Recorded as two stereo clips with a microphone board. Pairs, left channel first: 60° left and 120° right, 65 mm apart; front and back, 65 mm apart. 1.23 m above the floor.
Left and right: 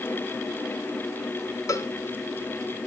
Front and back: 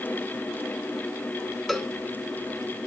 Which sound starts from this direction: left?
A cowbell, at 1.7 s.